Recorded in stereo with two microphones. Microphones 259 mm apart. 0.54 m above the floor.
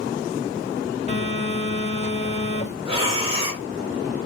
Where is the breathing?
20° right (ahead or behind), 1.3 m.